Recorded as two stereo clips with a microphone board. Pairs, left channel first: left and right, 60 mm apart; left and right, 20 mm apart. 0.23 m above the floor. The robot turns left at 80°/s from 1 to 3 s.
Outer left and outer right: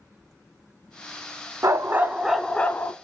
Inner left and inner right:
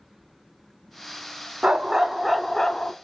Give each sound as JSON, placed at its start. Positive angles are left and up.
{"t": 1.6, "sound": "a dog barking", "azimuth_deg": -120, "distance_m": 0.5}